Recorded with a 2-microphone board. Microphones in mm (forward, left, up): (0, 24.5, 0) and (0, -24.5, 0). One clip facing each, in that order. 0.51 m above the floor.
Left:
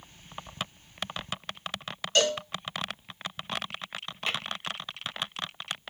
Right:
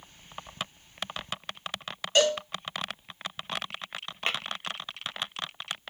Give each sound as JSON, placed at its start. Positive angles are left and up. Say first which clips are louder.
{"t": 2.1, "sound": "a cowbell", "louder": "right 2 dB", "side_deg": -15, "distance_m": 1.1}
{"t": 4.3, "sound": "tapping", "louder": "right 1 dB", "side_deg": -40, "distance_m": 0.5}